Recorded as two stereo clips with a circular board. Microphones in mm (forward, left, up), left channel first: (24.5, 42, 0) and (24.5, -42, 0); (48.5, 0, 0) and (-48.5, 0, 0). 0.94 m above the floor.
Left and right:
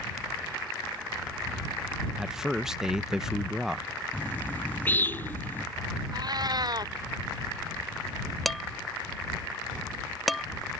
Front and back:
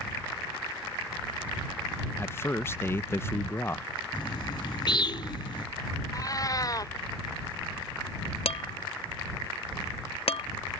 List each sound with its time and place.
2.2 s a man speaking: 10° right
4.1 s a bird: 25° left
6.1 s a cat meowing: 50° right
8.4 s dishes clattering: straight ahead